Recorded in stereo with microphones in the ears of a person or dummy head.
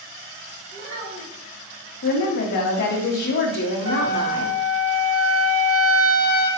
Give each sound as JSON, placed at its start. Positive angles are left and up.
{"t": 0.7, "sound": "a child speaking", "side_deg": -70, "distance_m": 2.0}
{"t": 2.0, "sound": "a woman speaking", "side_deg": 50, "distance_m": 0.9}
{"t": 3.9, "sound": "a trumpet", "side_deg": -80, "distance_m": 1.6}